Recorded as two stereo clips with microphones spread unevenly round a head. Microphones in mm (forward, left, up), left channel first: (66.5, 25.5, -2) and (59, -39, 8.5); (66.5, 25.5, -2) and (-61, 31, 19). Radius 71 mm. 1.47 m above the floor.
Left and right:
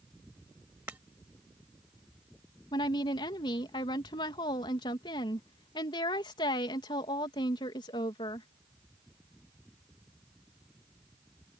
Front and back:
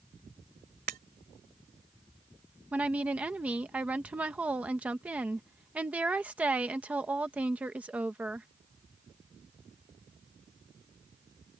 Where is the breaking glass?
170° right.